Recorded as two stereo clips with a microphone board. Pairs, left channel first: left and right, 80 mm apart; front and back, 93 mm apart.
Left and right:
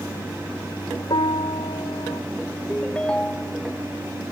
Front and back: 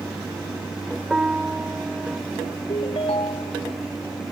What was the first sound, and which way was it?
A piano, 100° left.